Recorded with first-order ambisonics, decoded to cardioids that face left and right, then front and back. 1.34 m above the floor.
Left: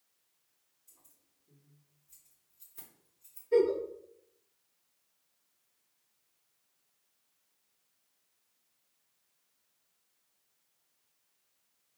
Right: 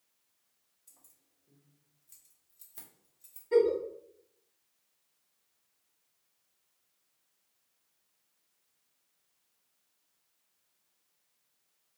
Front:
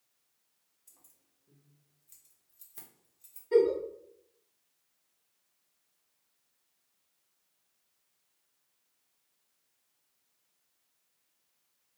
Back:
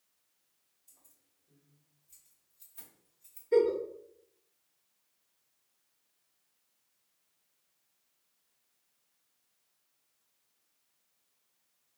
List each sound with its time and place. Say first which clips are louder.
0.9 s keys jangling: right 2 dB, front 2 dB; 40° right, 1.1 m
3.5 s a giggle: right 1 dB, front 1 dB; 45° right, 1.5 m